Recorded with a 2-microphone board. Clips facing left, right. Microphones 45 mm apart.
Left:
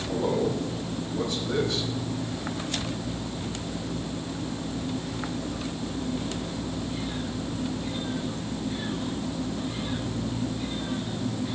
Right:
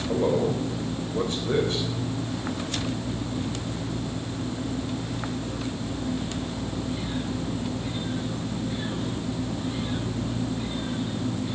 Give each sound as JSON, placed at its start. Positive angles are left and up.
{"t": 0.1, "sound": "a man speaking", "side_deg": -40, "distance_m": 4.0}